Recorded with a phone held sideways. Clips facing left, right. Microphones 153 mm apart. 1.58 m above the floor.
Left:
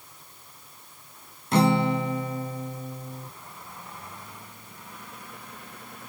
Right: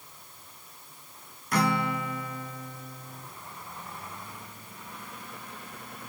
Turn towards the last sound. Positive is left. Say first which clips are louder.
# left 6 dB
turn(degrees=25)  # may be behind; listen again after turning